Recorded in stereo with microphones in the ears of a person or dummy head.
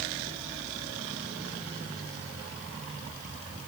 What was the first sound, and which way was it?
Only background noise.